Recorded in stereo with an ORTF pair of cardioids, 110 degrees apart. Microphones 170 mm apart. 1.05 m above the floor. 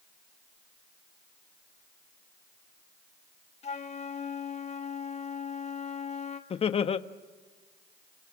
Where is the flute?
40° left, 1.6 m.